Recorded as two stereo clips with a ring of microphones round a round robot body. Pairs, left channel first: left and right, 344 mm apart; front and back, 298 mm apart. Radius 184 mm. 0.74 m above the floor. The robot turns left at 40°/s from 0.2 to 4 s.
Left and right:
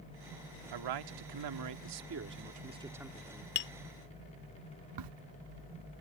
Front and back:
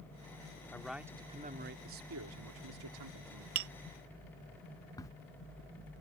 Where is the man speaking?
85° right; by 3.5 s 165° left.